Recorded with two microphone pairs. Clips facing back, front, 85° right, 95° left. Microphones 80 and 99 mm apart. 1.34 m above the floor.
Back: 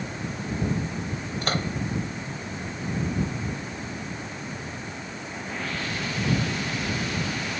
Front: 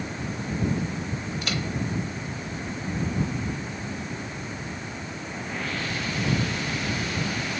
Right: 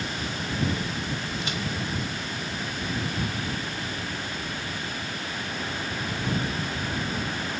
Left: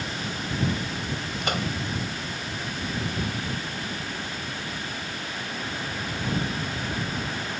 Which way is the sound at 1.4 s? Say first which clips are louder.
Back 5 dB, left 3 dB; 130° left.